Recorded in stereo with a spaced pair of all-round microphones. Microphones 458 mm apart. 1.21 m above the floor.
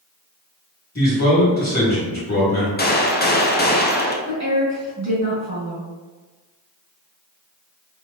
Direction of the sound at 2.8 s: 20° left (ahead or behind).